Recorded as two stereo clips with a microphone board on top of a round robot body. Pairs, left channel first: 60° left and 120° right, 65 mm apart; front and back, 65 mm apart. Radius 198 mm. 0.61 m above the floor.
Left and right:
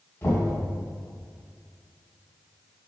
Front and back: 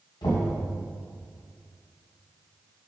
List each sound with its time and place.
0.2 s knocking: 5° right, 2.5 m